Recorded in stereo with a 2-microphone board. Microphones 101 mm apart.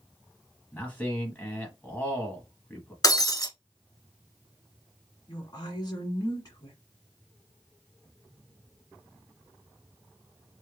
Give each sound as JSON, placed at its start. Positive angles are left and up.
{"t": 0.7, "sound": "a man speaking", "side_deg": 20, "distance_m": 1.0}
{"t": 3.0, "sound": "breaking glass", "side_deg": 40, "distance_m": 0.9}
{"t": 5.3, "sound": "a woman speaking", "side_deg": 45, "distance_m": 1.6}